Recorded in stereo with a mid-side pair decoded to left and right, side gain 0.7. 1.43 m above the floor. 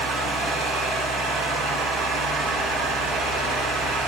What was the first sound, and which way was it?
A fan, 70° right.